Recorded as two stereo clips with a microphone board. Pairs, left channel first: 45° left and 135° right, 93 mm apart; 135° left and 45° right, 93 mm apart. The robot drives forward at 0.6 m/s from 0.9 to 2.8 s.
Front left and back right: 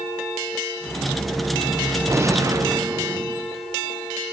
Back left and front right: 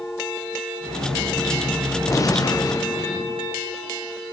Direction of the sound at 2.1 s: 175° left.